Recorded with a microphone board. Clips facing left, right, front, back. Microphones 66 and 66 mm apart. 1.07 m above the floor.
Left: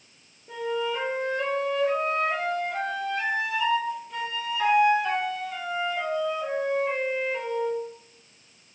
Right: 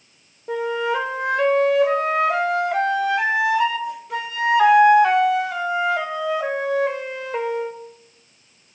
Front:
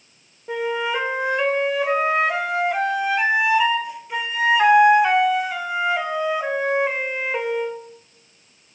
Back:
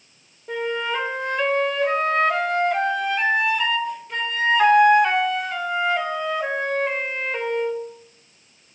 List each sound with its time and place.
0.5 s a flute: 85° right, 0.7 m